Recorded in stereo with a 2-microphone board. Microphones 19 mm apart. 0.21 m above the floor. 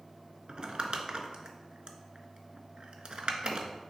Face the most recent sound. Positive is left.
turn(degrees=-55)  # may be behind; listen again after turning